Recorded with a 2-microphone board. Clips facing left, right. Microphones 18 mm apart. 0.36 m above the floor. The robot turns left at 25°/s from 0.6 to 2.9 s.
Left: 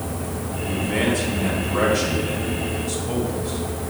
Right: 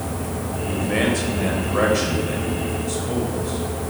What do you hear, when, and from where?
0.7 s a man speaking: 25° right (ahead or behind), 1.8 m; by 3.9 s 10° left (ahead or behind), 1.8 m